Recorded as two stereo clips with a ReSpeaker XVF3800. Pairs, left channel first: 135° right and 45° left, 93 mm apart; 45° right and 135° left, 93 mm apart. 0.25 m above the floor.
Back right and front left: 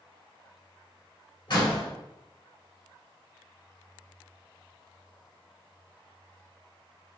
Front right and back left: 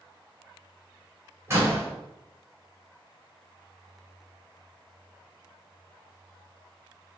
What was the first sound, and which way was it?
A door slam, 170° right.